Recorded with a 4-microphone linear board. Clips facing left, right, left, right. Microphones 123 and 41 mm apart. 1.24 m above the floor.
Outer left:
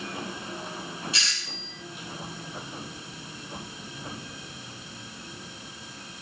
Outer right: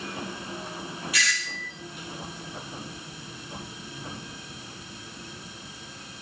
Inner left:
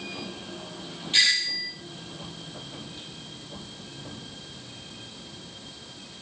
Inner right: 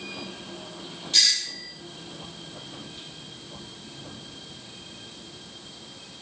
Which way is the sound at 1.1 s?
30° left (ahead or behind).